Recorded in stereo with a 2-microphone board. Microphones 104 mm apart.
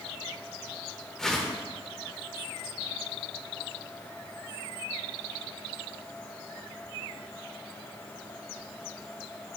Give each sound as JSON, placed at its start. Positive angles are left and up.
{"t": 1.2, "sound": "a whoosh", "side_deg": 5, "distance_m": 1.0}